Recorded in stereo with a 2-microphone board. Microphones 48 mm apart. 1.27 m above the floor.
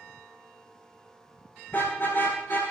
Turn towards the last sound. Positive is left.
turn(degrees=50)  # may be behind; listen again after turning